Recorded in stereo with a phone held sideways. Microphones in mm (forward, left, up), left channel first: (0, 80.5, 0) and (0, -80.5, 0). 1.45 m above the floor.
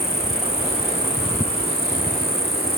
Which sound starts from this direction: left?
An insect, at 0.0 s.